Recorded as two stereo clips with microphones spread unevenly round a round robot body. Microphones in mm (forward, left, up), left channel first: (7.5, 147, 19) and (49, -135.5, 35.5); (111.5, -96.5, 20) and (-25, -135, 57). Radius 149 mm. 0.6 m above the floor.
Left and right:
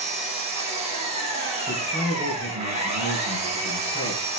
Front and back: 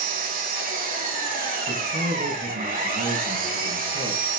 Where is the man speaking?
160° right, 7 m.